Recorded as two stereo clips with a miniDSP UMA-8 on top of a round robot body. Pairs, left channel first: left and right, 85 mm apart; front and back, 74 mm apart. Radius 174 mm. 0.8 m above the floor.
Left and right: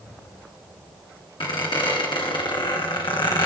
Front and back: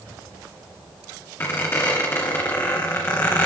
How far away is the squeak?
About 2 m.